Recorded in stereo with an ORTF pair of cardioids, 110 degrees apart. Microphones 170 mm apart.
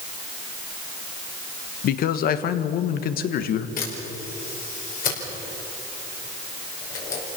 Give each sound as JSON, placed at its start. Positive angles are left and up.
{"t": 1.8, "sound": "a man speaking", "azimuth_deg": 65, "distance_m": 1.5}
{"t": 3.8, "sound": "a camera shutter", "azimuth_deg": 60, "distance_m": 5.5}